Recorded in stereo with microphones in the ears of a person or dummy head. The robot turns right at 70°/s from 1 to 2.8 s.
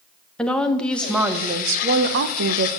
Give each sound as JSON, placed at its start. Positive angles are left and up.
{"t": 0.4, "sound": "a woman speaking", "azimuth_deg": 175, "distance_m": 1.0}